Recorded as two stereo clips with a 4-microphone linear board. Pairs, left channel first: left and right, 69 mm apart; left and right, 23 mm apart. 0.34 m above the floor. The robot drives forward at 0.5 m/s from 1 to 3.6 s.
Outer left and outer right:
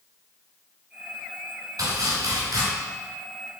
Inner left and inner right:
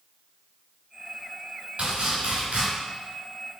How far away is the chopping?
About 2.0 m.